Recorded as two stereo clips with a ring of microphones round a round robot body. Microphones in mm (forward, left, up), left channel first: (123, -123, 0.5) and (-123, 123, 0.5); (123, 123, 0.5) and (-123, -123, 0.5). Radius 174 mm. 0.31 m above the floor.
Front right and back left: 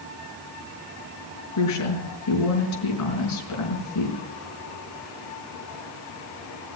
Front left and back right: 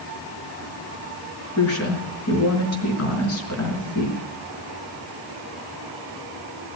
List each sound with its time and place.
1.6 s a woman speaking: 5° right, 5 m